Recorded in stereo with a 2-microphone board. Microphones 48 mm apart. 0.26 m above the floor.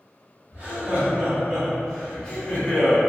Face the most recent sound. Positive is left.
turn(degrees=40)  # may be behind; listen again after turning